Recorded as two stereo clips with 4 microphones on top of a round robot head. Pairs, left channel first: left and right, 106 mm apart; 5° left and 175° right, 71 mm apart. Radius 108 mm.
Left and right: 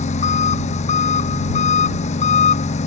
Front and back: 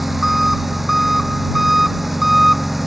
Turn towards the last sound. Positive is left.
turn(degrees=95)